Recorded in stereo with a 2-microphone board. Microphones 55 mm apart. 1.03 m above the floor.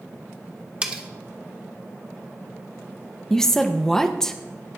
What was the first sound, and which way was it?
Cutlery clinking, 20° right (ahead or behind).